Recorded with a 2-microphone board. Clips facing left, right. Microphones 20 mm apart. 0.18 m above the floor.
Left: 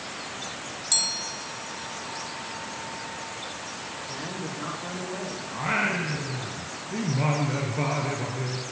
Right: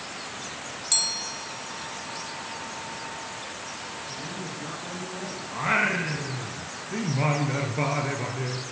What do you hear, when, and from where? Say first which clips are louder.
4.0 s a woman speaking: left 1 dB; 65° left (ahead or behind), 8.5 m
5.5 s singing: right 2 dB; 15° right (ahead or behind), 3 m